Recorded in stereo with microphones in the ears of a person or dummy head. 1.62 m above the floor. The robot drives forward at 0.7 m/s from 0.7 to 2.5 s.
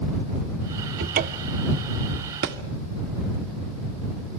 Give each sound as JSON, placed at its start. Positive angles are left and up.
{"t": 1.0, "sound": "a cupboard door", "side_deg": -55, "distance_m": 0.6}
{"t": 2.4, "sound": "a thud", "side_deg": -50, "distance_m": 1.6}